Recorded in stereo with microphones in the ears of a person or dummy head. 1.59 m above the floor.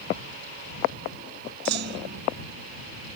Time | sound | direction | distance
1.6 | a clunk | 70° right (ahead or behind) | ?